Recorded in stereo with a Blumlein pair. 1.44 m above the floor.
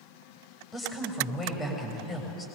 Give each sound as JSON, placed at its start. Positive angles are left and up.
{"t": 0.7, "sound": "a woman speaking", "azimuth_deg": 20, "distance_m": 7.5}